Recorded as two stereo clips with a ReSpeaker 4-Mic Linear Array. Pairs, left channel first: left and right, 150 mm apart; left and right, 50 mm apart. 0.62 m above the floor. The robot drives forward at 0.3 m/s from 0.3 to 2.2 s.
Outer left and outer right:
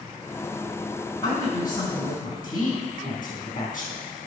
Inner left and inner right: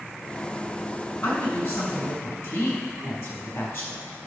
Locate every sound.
1.2 s a woman speaking: 65° left (ahead or behind), 5 m